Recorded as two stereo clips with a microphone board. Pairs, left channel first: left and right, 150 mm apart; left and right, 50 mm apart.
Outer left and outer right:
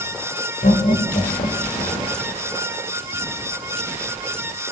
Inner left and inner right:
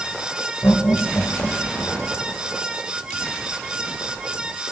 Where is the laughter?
60° left (ahead or behind), 6 m; by 2.2 s 45° left (ahead or behind), 3.5 m.